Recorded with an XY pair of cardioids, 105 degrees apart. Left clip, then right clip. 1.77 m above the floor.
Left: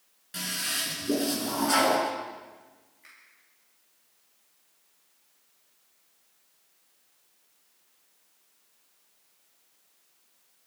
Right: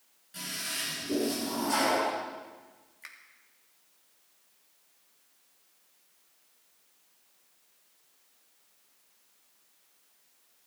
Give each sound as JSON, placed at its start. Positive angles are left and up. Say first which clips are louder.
{"t": 0.3, "sound": "a toilet flushing", "louder": "left 5 dB", "azimuth_deg": 65, "distance_m": 5.5}
{"t": 3.0, "sound": "a finger snap", "louder": "right 6 dB", "azimuth_deg": -70, "distance_m": 3.0}